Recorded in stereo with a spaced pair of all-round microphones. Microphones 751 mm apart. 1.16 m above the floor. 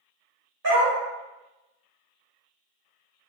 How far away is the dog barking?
About 1.4 m.